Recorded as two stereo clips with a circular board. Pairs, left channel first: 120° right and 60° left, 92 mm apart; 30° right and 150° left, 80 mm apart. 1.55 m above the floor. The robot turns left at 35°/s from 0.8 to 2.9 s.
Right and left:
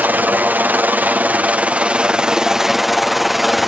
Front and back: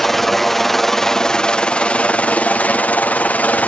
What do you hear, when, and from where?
0.0 s a helicopter: 50° left; by 3.7 s 25° right